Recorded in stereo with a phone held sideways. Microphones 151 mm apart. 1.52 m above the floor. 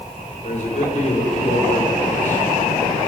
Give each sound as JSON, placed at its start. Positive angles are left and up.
{"t": 0.4, "sound": "a man speaking", "side_deg": 50, "distance_m": 6.0}